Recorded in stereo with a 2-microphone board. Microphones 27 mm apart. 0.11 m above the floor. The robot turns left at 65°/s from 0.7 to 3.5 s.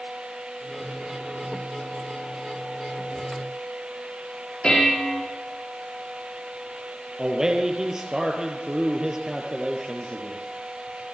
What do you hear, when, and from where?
4.6 s dishes clattering: 40° left (ahead or behind), 5 m
7.2 s a man speaking: 25° right (ahead or behind), 3 m